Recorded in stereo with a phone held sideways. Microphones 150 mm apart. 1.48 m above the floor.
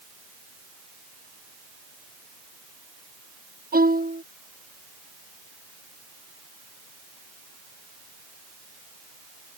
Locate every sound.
3.7 s a violin: 80° right